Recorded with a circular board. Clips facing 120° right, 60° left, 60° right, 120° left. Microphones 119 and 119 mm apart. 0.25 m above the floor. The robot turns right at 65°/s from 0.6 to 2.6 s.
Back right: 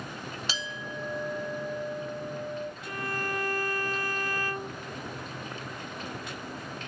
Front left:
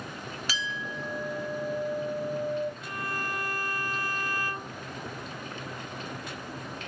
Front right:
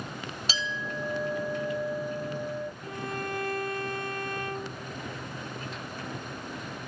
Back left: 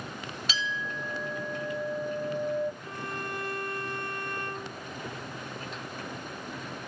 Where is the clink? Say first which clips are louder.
Front left 1 dB, front right 1 dB; 85° right, 0.9 m; by 2.7 s 45° left, 0.9 m.